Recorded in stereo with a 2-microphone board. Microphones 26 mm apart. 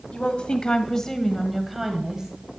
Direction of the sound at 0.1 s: 45° left (ahead or behind).